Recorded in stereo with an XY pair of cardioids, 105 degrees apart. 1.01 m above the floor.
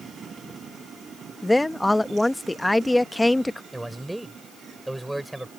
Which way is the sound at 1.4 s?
5° left.